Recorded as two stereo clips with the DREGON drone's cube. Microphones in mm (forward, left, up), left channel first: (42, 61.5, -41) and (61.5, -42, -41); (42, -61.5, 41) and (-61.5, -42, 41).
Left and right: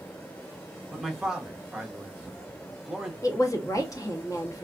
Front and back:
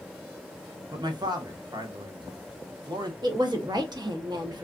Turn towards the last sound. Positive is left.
turn(degrees=140)